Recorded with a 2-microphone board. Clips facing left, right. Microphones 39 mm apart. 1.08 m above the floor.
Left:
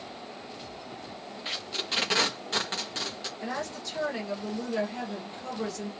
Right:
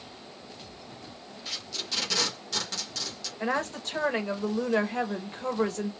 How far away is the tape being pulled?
About 1.1 m.